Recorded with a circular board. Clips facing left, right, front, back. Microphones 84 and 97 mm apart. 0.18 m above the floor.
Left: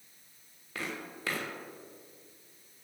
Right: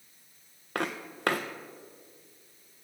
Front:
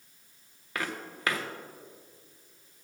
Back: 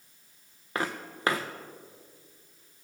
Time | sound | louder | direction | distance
0.8 | footsteps | right 6 dB, back 3 dB | 120° right | 1.0 m